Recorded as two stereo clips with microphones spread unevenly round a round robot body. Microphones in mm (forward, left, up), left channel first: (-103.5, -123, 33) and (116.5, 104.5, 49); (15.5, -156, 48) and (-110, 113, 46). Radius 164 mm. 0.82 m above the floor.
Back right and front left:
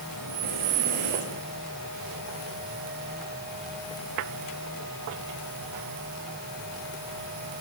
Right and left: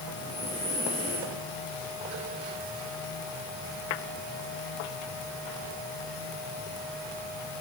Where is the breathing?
15° left, 7.5 m.